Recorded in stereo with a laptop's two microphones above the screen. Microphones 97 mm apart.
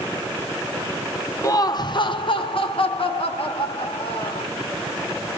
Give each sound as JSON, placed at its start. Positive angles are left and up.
{"t": 1.4, "sound": "laughter", "side_deg": 30, "distance_m": 0.6}